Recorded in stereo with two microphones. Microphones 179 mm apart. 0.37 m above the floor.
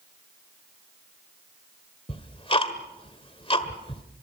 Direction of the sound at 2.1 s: 30° left (ahead or behind).